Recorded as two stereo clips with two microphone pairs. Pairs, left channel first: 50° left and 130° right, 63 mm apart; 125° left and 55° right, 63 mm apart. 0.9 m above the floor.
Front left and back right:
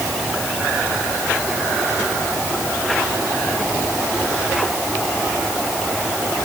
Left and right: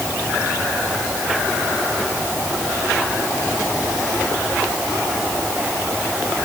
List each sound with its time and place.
Only background noise.